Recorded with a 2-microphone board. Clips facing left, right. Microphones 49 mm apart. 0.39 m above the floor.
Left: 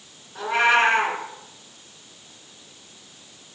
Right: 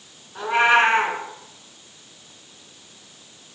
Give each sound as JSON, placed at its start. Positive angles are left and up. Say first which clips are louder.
{"t": 0.3, "sound": "a cat meowing", "louder": "right 2 dB", "side_deg": -15, "distance_m": 1.2}